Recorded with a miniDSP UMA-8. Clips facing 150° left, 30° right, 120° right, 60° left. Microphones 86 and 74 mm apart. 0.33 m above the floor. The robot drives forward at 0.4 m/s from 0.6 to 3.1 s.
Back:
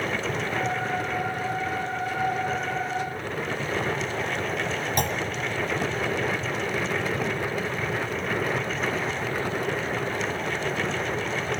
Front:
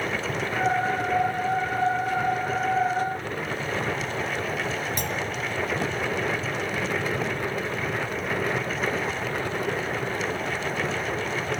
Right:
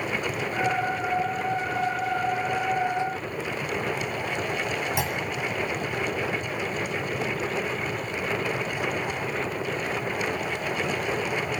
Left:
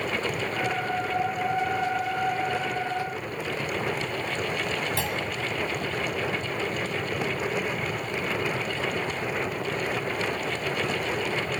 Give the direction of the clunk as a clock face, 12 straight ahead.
6 o'clock.